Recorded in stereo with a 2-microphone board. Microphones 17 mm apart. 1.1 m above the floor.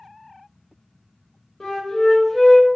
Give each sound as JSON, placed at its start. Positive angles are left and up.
{"t": 1.6, "sound": "a flute", "side_deg": 35, "distance_m": 1.2}